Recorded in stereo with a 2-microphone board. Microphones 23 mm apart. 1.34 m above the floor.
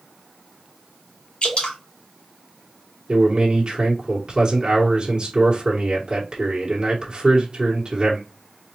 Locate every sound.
1.4 s dripping: 55° left (ahead or behind), 1.4 m
3.1 s a man speaking: 35° right (ahead or behind), 1.3 m